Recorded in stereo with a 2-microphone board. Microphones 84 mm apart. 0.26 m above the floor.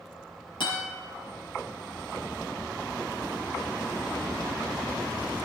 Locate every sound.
0.6 s a guitar: 70° left (ahead or behind), 6 m